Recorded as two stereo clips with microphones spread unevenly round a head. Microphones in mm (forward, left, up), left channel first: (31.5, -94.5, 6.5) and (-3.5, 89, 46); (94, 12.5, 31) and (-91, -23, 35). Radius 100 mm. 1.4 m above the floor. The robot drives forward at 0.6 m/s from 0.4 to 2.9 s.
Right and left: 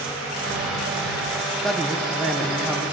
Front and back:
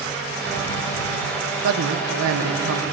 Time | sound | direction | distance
1.6 | a man speaking | 165° right | 1.1 m